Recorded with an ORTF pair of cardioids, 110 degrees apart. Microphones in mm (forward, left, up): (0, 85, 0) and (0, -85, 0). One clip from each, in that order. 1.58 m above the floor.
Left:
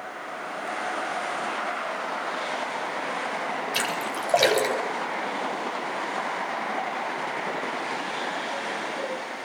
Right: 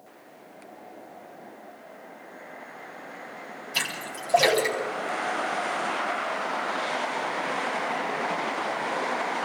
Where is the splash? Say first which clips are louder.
Right 2 dB; 35° left, 8 m.